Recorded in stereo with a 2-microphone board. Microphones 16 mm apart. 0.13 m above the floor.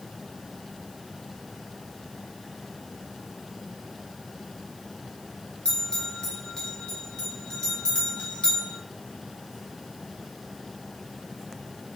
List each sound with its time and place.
5.7 s a bell: 50° left (ahead or behind), 1.4 m